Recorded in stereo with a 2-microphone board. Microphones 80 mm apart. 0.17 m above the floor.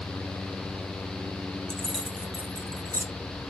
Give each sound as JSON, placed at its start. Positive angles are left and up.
{"t": 1.7, "sound": "keys jangling", "side_deg": 10, "distance_m": 0.7}